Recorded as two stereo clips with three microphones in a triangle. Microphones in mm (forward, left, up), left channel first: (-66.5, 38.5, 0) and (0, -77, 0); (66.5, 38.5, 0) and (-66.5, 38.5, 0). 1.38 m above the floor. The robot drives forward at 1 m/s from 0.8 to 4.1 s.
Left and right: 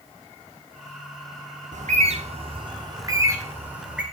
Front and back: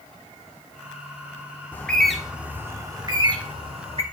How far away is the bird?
About 1.7 m.